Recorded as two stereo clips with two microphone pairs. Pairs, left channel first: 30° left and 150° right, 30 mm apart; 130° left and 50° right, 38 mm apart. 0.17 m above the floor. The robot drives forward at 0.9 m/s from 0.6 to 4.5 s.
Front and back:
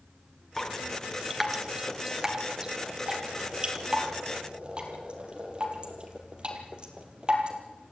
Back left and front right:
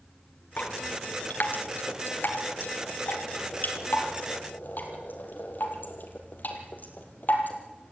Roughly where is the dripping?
Left.